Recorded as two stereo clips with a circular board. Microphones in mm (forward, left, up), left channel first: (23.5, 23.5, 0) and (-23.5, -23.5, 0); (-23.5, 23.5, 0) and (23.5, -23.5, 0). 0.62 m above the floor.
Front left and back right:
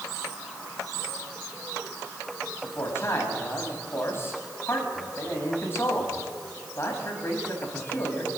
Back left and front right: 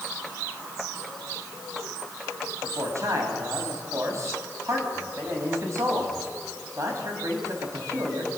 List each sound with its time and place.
2.6 s a man speaking: 5° right, 5 m